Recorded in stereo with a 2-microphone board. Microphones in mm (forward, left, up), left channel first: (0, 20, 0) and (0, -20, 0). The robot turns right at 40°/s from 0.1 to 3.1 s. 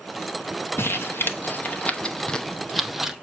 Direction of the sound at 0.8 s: 75° left (ahead or behind).